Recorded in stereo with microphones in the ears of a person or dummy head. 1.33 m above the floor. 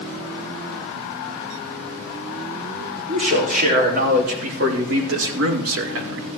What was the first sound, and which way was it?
A man speaking, 45° right (ahead or behind).